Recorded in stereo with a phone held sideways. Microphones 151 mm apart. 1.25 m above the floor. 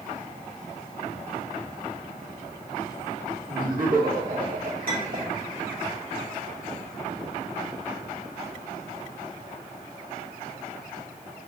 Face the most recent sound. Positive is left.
turn(degrees=-70)  # may be behind; listen again after turning